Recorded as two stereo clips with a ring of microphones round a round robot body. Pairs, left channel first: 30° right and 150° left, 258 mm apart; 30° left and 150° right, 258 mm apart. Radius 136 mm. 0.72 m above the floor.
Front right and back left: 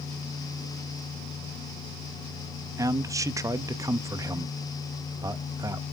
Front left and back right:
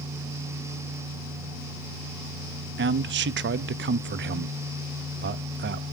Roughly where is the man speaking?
Behind right.